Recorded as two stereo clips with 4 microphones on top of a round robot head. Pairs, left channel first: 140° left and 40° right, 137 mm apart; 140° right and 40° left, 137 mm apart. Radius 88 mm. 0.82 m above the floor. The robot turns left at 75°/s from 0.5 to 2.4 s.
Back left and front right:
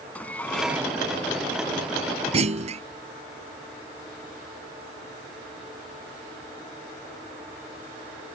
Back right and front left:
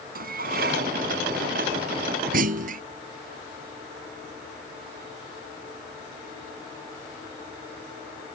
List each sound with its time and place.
0.1 s dishes clattering: 60° left; by 0.9 s 25° left
2.3 s a clunk: 10° left